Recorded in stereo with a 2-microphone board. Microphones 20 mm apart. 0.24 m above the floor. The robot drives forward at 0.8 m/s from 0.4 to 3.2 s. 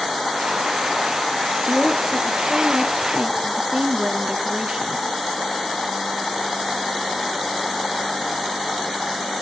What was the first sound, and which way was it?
A woman speaking, 35° right (ahead or behind).